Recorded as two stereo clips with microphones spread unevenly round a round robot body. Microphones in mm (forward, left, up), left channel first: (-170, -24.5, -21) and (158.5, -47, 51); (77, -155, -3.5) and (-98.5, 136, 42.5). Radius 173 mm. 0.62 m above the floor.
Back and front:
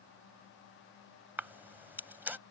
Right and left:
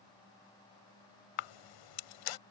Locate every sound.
1.4 s a camera shutter: 85° right